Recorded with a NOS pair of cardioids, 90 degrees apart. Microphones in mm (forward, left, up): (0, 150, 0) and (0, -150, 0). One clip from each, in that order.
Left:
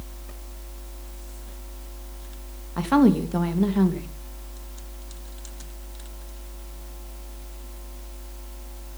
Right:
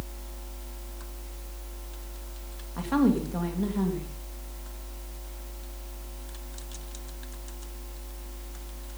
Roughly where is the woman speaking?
Ahead left.